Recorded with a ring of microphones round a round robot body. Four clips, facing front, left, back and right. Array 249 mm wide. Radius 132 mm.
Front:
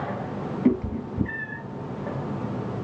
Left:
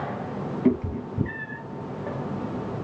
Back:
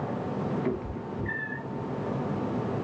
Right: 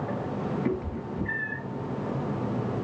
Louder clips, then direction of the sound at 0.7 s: Left 6 dB, front 8 dB; 45° left.